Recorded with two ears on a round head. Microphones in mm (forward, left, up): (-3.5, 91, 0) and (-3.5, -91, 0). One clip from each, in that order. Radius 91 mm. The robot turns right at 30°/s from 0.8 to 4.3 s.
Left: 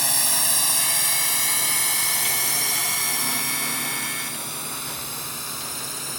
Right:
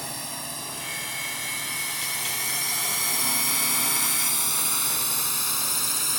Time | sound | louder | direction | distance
0.0 | a drone | left 10 dB | 50° left (ahead or behind) | ?